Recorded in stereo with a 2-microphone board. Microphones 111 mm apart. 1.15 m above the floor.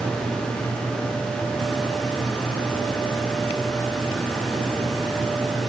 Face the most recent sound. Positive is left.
No sound to turn to.